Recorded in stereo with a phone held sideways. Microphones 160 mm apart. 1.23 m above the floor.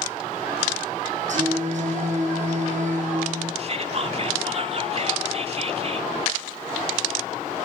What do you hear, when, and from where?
1.3 s singing: 55° right (ahead or behind), 7 m
3.6 s whispering: 45° right (ahead or behind), 2.5 m